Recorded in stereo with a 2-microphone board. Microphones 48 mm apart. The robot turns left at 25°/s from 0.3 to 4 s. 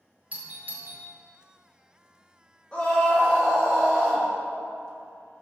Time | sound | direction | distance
0.3 | a doorbell | 30° right (ahead or behind) | 1.1 m
2.7 | a scream | 20° left | 1.2 m